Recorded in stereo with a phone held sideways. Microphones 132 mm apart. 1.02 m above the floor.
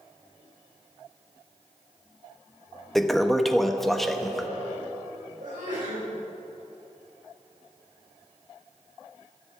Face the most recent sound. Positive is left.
turn(degrees=-80)